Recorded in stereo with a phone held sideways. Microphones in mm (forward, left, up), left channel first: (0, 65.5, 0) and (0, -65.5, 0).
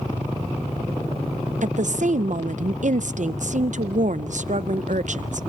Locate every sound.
1.6 s a woman speaking: 65° right (ahead or behind), 0.5 m